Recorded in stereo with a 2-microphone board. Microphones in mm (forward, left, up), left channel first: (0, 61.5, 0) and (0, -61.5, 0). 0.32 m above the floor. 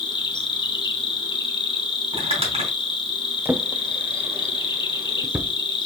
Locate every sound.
0.0 s an insect: 40° left (ahead or behind), 0.8 m
2.1 s crumpling: 50° right (ahead or behind), 3 m
3.5 s a drawer: 15° right (ahead or behind), 0.5 m